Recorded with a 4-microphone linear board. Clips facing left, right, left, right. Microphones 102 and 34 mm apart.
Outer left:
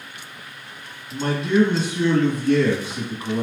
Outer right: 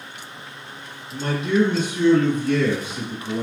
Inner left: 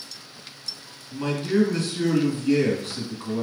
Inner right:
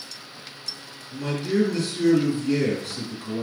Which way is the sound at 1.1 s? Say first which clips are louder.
Outer left 1 dB, inner left 1 dB; 40° left (ahead or behind).